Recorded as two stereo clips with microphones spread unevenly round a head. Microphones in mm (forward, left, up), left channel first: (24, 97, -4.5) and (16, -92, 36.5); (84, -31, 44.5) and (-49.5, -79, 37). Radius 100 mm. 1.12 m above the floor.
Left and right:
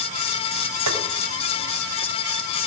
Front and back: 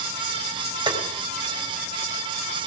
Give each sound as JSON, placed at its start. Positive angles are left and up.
{"t": 0.9, "sound": "tapping", "azimuth_deg": -105, "distance_m": 4.0}